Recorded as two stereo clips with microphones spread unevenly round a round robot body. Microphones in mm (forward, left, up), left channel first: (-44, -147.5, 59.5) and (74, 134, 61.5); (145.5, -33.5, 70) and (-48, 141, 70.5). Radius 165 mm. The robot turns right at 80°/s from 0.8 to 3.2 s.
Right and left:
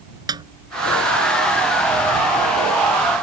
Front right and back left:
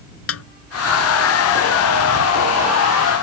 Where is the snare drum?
10° right.